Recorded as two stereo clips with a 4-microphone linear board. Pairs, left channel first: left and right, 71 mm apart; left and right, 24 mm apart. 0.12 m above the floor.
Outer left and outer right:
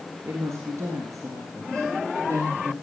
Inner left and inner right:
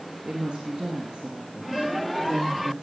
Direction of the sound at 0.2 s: 40° right (ahead or behind).